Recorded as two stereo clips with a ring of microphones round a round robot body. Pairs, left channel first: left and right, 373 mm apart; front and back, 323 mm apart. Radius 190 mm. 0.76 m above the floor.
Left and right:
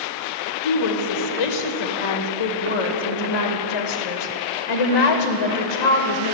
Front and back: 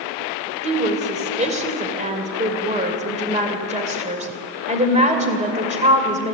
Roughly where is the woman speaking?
Left.